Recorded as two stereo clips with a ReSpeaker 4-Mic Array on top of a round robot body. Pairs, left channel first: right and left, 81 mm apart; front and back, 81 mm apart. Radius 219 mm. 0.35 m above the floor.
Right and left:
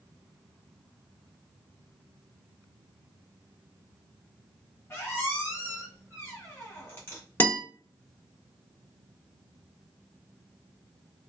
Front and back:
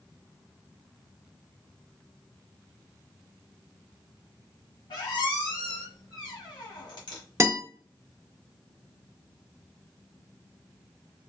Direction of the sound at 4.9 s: 25° right.